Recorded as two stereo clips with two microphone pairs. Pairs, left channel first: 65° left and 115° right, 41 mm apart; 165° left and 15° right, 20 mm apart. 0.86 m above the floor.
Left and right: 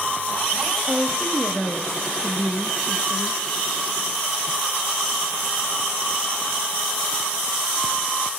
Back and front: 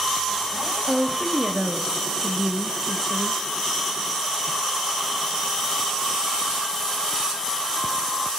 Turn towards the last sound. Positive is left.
turn(degrees=85)